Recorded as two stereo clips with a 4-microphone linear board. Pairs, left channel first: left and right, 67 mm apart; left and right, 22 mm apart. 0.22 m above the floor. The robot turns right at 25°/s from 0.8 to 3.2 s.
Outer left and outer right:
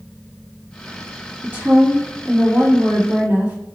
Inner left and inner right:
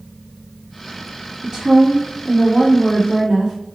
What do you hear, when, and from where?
1.4 s a woman speaking: 100° right, 1.4 m; by 3.5 s 55° right, 1.4 m